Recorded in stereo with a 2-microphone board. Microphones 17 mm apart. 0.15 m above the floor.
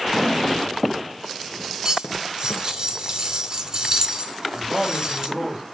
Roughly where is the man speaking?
Centre.